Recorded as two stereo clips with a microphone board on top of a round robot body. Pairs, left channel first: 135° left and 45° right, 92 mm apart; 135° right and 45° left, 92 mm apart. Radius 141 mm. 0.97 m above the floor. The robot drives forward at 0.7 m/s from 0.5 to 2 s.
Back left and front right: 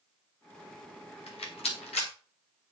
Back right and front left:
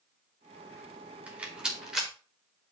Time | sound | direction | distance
1.3 | a rattle | 120° left | 2.5 m